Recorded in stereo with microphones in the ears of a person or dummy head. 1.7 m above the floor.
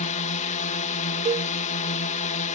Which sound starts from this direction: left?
A drone, at 0.0 s.